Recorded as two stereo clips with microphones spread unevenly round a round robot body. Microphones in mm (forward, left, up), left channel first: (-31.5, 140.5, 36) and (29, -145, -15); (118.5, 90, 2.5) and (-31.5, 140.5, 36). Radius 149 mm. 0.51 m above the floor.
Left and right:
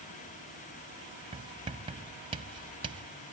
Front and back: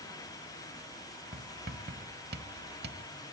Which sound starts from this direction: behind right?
Writing, at 1.3 s.